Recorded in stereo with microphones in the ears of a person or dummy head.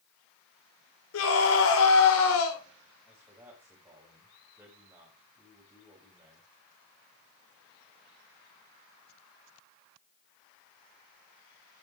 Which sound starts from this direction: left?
A scream, at 1.1 s.